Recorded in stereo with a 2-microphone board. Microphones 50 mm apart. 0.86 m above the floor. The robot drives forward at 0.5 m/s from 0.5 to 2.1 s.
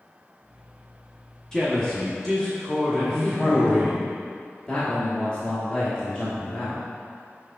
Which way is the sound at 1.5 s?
10° left (ahead or behind).